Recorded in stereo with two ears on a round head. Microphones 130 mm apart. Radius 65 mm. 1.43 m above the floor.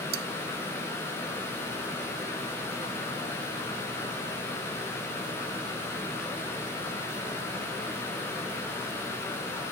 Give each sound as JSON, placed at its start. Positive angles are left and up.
{"t": 0.1, "sound": "cutlery clinking", "side_deg": -80}